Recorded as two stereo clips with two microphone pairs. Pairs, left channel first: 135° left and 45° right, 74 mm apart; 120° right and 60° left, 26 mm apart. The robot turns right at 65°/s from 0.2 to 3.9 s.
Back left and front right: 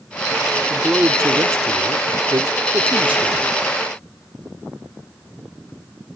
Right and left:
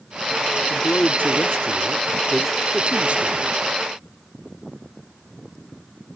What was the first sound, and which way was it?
A man speaking, 130° right.